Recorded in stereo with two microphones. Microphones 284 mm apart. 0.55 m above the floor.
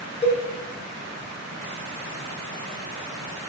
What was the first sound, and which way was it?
A cowbell, 20° left (ahead or behind).